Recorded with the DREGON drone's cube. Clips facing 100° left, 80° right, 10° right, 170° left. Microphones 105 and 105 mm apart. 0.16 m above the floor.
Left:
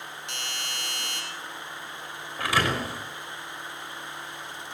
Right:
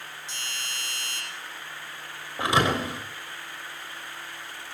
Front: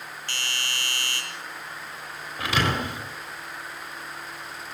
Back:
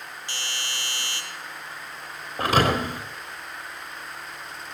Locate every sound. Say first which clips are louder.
0.3 s a doorbell: left 2 dB, front 2 dB; 100° left, 7 m
2.4 s a thud: right 3 dB, back 5 dB; 145° right, 4 m